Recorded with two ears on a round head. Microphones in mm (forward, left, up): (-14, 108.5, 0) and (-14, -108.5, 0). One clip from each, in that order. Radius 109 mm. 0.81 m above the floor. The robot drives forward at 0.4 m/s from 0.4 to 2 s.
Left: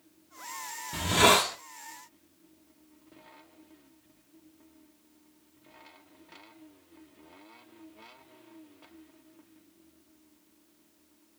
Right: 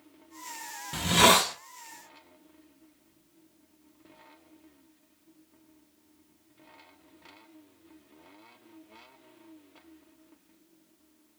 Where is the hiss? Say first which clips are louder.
Right 1 dB; 25° right (ahead or behind), 0.6 m.